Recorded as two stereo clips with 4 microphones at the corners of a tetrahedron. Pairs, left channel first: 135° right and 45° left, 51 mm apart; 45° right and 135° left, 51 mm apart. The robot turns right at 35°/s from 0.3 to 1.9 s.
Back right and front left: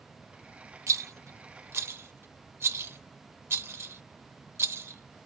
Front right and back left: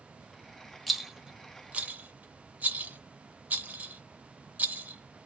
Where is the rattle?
45° left, 0.6 m; by 5.3 s 80° left, 0.6 m.